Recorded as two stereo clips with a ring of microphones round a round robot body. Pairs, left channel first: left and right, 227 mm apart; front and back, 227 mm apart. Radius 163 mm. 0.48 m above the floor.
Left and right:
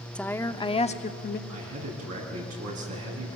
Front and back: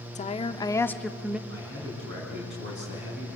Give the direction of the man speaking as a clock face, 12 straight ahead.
4 o'clock.